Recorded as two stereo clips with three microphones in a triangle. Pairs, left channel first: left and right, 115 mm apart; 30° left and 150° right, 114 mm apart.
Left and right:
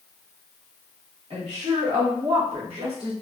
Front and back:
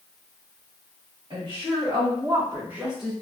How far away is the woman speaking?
About 1.6 m.